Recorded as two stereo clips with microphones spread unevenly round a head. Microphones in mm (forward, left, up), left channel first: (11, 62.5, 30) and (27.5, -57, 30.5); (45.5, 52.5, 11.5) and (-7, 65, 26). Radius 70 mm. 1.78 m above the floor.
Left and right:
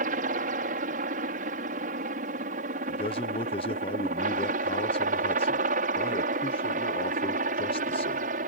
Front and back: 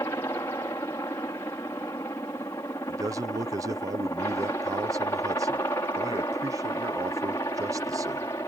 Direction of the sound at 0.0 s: 70° right.